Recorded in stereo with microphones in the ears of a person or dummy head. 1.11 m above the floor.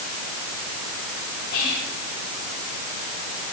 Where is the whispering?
55° left (ahead or behind), 6.5 m.